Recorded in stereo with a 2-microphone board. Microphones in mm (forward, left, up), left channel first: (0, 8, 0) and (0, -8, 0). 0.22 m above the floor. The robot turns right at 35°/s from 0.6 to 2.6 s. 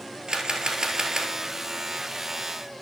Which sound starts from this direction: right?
A camera shutter, at 0.3 s.